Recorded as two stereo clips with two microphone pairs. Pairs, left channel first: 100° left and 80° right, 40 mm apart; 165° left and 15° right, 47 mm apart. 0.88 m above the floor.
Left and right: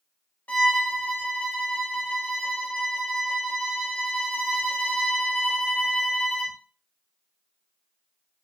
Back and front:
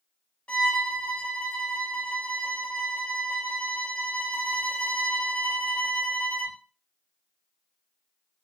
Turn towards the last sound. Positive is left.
turn(degrees=110)